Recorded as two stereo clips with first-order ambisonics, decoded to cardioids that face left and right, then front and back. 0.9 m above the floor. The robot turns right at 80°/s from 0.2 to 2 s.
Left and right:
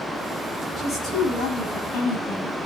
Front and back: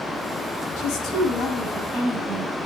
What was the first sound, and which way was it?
A woman speaking, 15° left.